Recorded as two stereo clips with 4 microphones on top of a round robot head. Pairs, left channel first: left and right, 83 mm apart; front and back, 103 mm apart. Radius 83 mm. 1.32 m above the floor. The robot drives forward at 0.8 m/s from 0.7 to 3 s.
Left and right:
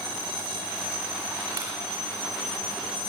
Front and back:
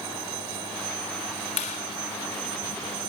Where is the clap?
25° right, 5 m.